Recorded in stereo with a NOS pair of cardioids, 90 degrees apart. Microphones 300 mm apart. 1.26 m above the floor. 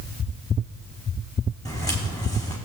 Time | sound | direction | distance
1.6 | footsteps | 15° left | 5.5 m